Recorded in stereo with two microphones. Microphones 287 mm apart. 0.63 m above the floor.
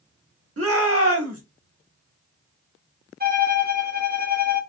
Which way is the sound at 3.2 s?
35° right (ahead or behind).